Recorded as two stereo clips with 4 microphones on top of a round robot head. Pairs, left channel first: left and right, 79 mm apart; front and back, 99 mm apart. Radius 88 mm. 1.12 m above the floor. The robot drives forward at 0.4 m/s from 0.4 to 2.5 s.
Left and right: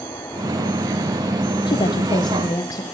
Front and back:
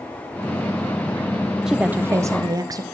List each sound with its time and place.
1.7 s a woman speaking: 100° left, 0.5 m; by 2.8 s 130° left, 0.6 m